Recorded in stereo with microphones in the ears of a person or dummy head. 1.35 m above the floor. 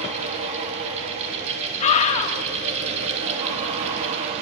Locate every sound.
0.0 s a fan: 35° right (ahead or behind), 3 m
1.8 s a scream: 35° left (ahead or behind), 3 m